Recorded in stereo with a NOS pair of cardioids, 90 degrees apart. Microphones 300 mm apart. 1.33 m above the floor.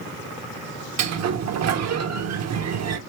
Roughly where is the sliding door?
Ahead right.